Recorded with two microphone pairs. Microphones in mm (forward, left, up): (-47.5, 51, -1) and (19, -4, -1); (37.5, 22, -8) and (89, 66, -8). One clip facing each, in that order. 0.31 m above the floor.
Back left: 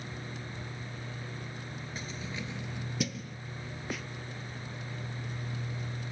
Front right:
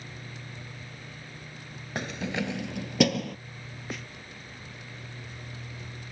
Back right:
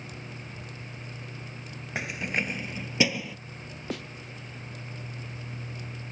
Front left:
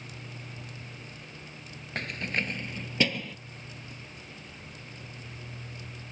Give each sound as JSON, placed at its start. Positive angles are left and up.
{"t": 1.9, "sound": "keys jangling", "azimuth_deg": -60}
{"t": 3.9, "sound": "a snare drum", "azimuth_deg": -130}